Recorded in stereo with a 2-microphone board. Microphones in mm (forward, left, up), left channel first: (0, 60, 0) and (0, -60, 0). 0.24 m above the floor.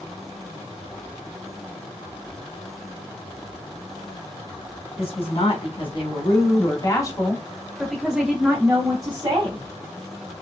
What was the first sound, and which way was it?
A woman speaking, 60° left (ahead or behind).